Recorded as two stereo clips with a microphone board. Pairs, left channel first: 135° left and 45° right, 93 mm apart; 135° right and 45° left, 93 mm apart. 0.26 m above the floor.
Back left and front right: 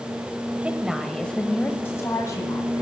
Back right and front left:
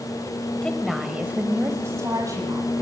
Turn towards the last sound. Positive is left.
turn(degrees=85)